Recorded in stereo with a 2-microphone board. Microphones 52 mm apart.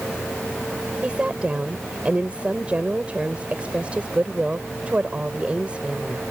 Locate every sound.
1.0 s a woman speaking: 25° right (ahead or behind)